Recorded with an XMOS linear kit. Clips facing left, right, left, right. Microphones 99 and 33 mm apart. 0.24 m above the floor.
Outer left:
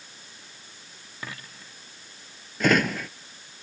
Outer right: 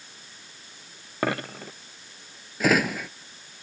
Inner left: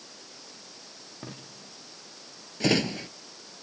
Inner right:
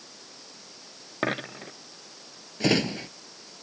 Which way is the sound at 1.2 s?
75° right (ahead or behind).